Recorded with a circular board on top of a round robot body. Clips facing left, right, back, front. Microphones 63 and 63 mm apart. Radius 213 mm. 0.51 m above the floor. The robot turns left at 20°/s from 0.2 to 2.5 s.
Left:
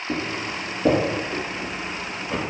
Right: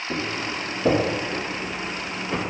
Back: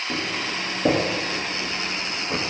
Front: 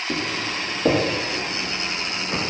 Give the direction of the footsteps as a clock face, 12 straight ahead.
9 o'clock.